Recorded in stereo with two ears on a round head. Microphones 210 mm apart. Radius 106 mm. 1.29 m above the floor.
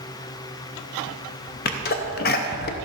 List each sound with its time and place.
1.6 s a sneeze: 40° left (ahead or behind), 0.6 m